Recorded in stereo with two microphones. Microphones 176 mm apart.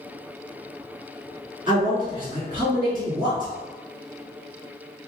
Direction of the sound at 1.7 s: 25° right (ahead or behind).